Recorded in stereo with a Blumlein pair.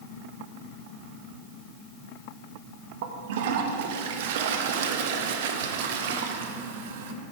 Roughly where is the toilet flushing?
Ahead right.